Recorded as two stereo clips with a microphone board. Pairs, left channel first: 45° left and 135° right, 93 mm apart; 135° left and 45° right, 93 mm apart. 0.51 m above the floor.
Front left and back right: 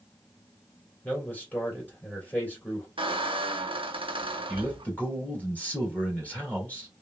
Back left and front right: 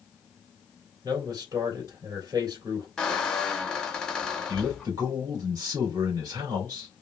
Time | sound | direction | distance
1.0 | a man speaking | 20° right | 2 m
3.0 | a squeak | 145° right | 0.6 m
4.5 | a man speaking | 25° right | 2 m